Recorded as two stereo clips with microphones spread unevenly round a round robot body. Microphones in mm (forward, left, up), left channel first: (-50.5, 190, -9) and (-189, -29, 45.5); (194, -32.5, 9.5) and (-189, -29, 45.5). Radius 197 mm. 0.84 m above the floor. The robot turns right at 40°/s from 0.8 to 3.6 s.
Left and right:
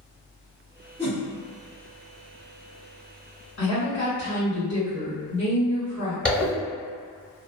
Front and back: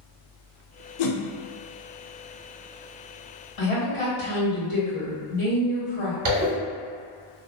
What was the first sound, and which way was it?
A whoosh, 30° right.